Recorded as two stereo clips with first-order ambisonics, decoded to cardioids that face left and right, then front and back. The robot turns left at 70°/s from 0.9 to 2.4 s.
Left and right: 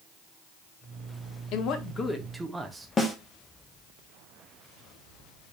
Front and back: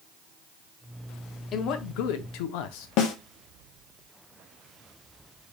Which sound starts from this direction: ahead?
A snare drum, at 3.0 s.